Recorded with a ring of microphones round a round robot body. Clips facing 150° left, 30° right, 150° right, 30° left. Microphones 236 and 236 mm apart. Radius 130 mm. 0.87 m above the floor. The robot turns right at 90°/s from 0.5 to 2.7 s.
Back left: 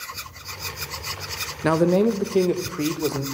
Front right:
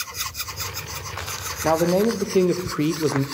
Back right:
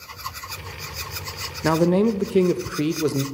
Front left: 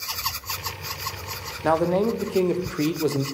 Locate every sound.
1.6 s a man speaking: 175° right, 0.6 m; by 3.2 s 80° right, 0.6 m